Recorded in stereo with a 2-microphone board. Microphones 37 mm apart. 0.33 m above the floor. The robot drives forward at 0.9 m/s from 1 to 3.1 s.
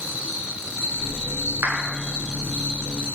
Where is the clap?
75° right (ahead or behind), 3.5 m.